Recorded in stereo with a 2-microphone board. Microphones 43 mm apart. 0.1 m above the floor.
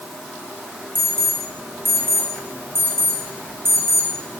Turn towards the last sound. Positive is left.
turn(degrees=-65)  # may be behind; listen again after turning